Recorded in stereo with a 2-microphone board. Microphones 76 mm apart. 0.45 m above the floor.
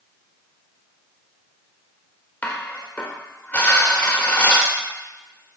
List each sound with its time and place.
2.4 s dishes clattering: 20° left (ahead or behind), 0.9 m